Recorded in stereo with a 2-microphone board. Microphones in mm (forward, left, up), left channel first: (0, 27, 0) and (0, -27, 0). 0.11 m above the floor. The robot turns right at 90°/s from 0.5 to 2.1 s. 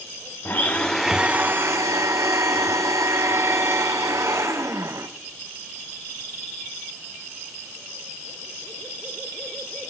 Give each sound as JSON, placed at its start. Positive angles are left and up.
{"t": 0.5, "sound": "a blender", "azimuth_deg": 135, "distance_m": 1.3}